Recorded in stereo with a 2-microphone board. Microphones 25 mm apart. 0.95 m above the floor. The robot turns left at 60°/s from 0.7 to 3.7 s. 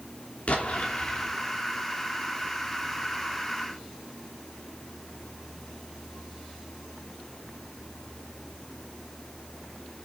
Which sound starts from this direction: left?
An explosion, at 0.5 s.